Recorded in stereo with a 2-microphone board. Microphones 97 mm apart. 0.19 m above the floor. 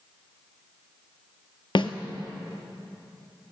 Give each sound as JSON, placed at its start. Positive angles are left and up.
{"t": 1.8, "sound": "a snare drum", "side_deg": 60, "distance_m": 0.9}